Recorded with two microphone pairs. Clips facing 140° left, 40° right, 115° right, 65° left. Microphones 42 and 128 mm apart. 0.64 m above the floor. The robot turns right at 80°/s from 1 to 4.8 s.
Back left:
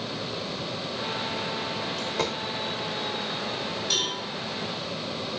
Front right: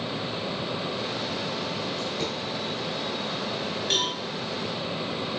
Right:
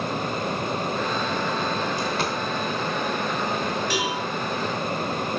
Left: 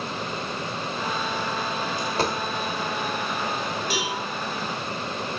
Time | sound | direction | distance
2.0 | a dropped coin | 100° left | 0.8 m
3.9 | a cowbell | 5° left | 1.6 m